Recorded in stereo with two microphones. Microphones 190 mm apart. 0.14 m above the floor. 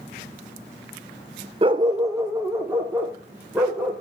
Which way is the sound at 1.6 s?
30° right (ahead or behind).